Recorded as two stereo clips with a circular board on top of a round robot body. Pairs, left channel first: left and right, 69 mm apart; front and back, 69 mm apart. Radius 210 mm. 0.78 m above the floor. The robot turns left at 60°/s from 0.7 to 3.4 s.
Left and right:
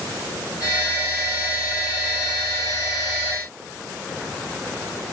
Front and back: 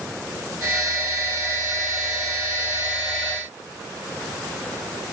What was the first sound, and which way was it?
Only background noise.